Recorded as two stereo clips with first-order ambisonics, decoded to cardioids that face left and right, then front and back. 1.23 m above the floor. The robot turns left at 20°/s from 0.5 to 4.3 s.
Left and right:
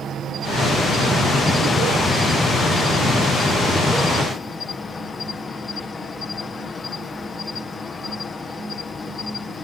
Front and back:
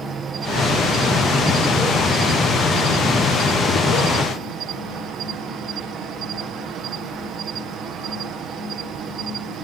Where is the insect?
130° right; by 9.6 s 155° left.